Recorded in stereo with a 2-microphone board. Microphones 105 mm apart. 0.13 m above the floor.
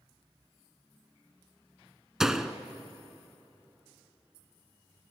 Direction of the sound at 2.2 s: 5° right (ahead or behind).